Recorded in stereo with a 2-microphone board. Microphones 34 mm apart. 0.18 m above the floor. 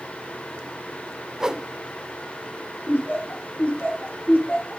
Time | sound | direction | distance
1.4 | a whoosh | 15° right (ahead or behind) | 0.6 m
2.9 | laughter | 55° left (ahead or behind) | 7 m